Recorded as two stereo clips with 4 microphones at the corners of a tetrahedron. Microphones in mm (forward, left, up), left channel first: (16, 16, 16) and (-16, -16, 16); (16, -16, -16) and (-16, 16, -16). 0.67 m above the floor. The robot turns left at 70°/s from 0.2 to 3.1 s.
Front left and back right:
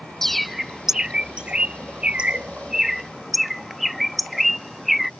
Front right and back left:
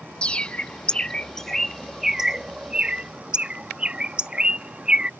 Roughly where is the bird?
Ahead right.